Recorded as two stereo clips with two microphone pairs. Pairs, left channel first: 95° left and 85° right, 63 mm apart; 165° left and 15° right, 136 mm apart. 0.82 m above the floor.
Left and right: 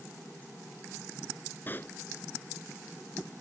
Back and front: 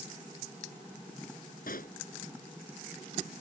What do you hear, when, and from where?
1.7 s a pop: 155° left